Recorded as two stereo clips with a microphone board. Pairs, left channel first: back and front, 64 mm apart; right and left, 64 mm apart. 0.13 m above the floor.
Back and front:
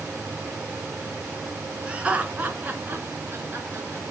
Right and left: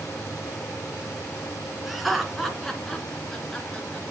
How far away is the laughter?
About 1.7 m.